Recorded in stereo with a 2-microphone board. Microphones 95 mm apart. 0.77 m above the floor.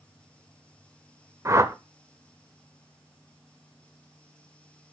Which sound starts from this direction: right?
A whoosh, at 1.4 s.